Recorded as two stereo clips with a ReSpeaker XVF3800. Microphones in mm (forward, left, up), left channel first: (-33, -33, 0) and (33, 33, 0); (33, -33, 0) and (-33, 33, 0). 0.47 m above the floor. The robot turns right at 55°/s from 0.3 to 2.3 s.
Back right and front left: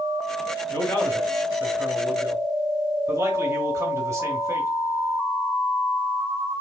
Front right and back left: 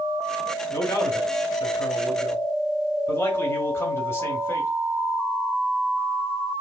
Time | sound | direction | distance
0.7 | a man speaking | 85° right | 1.1 m